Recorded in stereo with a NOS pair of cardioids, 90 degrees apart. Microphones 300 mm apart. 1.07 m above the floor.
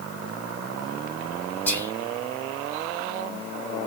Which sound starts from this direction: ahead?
Whispering, at 1.7 s.